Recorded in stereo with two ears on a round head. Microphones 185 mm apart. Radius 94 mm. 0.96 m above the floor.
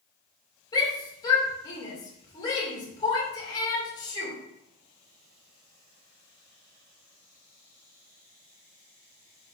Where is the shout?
20° left (ahead or behind), 2.5 m.